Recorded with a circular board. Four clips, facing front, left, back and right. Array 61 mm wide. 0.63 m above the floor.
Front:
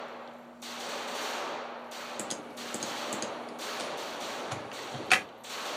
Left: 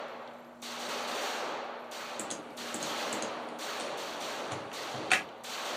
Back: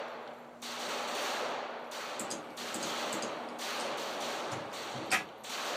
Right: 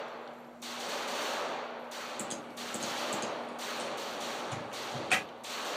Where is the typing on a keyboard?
20° left, 2.0 m.